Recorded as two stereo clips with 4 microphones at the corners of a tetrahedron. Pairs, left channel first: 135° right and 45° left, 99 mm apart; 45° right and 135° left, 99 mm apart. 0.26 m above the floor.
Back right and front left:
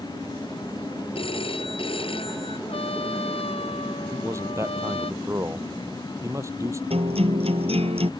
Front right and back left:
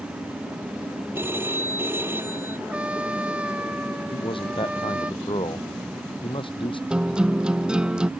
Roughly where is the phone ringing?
Behind.